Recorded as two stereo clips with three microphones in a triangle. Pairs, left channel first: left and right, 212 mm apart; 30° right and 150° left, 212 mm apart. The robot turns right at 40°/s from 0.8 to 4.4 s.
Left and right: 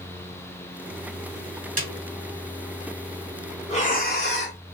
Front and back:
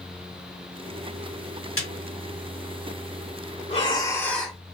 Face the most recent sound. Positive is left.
turn(degrees=60)